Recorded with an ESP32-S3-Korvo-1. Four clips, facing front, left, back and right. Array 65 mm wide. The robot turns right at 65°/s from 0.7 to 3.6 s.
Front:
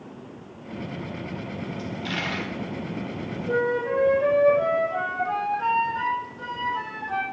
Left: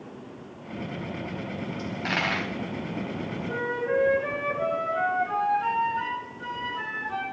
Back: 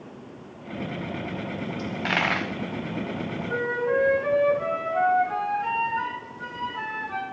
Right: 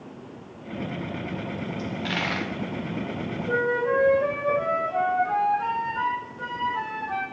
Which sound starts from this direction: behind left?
A dropped coin, at 1.8 s.